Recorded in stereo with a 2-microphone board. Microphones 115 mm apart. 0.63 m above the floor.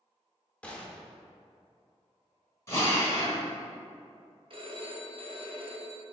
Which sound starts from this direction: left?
A drill, at 2.7 s.